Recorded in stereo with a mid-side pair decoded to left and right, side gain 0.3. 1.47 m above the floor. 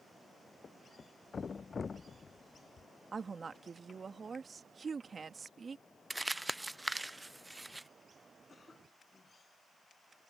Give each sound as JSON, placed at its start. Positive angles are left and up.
{"t": 0.6, "sound": "a thud", "azimuth_deg": 50}
{"t": 3.1, "sound": "a woman speaking", "azimuth_deg": -55}
{"t": 6.1, "sound": "crumpling", "azimuth_deg": -20}
{"t": 8.5, "sound": "a cough", "azimuth_deg": 45}